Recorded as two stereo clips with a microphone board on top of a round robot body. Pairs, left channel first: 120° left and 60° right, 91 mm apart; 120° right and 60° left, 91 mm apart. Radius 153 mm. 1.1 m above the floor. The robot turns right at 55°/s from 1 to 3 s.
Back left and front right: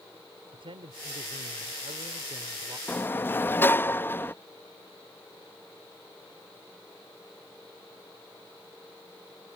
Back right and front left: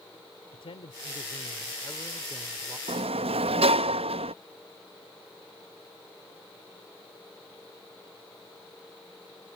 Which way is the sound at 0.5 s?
90° right.